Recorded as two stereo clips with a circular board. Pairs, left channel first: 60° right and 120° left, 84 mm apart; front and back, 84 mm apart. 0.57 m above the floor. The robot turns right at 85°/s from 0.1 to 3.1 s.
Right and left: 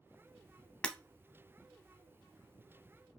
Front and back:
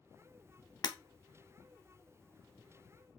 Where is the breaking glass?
15° left, 0.6 m; by 1.0 s 25° left, 0.6 m.